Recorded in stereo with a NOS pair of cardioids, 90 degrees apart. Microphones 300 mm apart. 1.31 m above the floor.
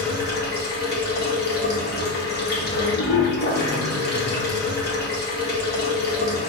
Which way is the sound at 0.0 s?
35° left.